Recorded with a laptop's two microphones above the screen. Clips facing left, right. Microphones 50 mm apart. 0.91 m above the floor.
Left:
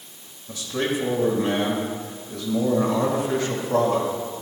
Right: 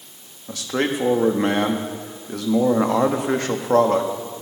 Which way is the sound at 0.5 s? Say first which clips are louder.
Right 3 dB; 65° right (ahead or behind).